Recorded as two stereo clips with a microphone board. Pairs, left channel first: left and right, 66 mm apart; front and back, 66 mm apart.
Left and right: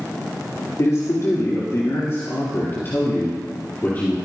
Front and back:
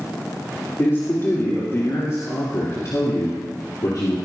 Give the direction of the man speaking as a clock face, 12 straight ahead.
10 o'clock.